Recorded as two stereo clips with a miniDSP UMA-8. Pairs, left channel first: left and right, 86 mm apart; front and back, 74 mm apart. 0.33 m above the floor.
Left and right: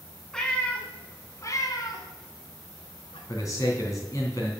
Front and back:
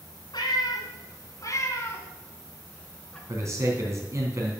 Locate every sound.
0.3 s a cat meowing: 10° left, 1.7 m; by 3.2 s 80° left, 2 m
3.3 s a man speaking: 135° left, 3 m